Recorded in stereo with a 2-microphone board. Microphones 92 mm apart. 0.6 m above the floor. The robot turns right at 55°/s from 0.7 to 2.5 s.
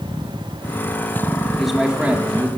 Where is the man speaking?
175° left, 1.6 m; by 2.5 s 135° right, 1.6 m.